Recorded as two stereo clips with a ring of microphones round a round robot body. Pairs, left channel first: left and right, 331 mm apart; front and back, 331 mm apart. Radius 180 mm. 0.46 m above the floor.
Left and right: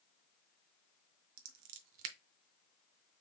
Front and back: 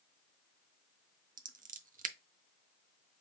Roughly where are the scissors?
Behind right.